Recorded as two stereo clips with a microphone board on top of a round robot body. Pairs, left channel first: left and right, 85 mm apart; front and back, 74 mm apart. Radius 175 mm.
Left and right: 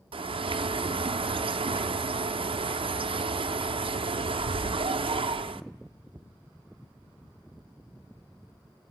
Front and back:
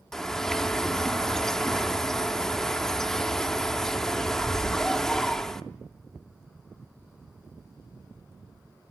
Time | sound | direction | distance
0.1 | a bird | 85° right | 0.5 m